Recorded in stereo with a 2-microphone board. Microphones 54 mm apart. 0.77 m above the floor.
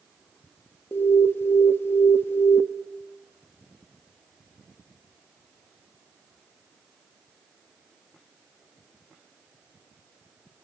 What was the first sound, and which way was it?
An alarm, 50° left (ahead or behind).